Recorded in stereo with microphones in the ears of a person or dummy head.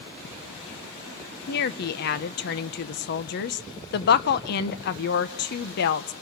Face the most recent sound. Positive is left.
turn(degrees=50)  # may be behind; listen again after turning